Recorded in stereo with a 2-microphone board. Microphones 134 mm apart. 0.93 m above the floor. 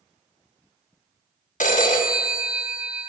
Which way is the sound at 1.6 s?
75° left (ahead or behind).